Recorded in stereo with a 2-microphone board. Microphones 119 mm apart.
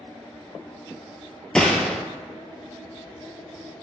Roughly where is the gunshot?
Centre.